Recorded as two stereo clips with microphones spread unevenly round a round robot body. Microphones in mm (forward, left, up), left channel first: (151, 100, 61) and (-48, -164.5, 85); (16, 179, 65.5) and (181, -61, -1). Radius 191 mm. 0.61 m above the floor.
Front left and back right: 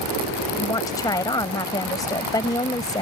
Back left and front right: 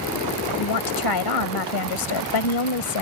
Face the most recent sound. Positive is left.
turn(degrees=135)